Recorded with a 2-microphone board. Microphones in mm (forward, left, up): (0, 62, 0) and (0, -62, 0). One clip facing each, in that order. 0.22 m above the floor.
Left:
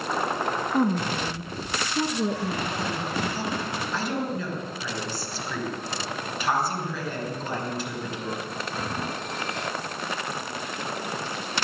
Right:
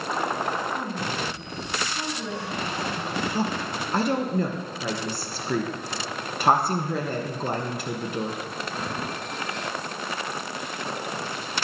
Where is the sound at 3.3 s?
60° right (ahead or behind), 3 m.